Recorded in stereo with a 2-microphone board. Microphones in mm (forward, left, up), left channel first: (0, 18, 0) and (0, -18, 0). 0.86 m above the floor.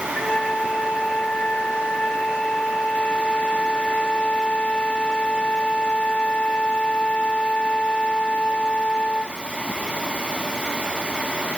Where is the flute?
35° left (ahead or behind).